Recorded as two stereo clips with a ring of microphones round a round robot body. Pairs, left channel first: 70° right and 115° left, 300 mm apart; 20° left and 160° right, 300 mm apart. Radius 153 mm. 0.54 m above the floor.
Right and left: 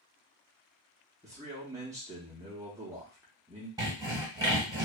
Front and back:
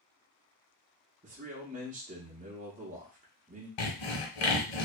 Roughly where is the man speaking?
Behind.